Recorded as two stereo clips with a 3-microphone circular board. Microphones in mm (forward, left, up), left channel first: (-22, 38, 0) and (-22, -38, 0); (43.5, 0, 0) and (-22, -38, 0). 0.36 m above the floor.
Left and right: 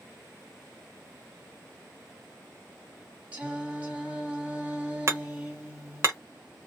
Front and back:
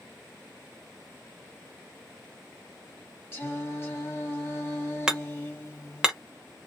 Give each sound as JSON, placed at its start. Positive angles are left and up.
{"t": 3.3, "sound": "singing", "azimuth_deg": -25, "distance_m": 1.7}
{"t": 5.1, "sound": "hammering", "azimuth_deg": -75, "distance_m": 0.8}